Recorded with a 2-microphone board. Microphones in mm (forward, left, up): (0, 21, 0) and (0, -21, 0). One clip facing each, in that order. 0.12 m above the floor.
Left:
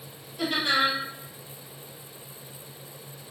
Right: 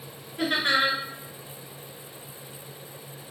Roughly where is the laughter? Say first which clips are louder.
Right 1 dB; right.